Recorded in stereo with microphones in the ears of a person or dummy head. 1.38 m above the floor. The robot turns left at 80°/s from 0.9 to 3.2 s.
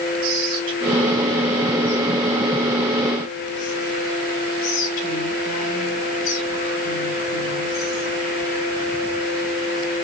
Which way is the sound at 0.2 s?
50° right (ahead or behind).